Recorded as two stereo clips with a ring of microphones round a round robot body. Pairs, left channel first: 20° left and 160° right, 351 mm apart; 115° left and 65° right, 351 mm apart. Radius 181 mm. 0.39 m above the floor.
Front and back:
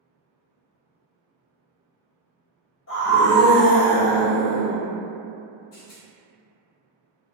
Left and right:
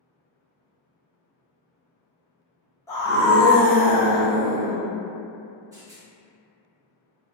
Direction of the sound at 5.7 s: 10° left.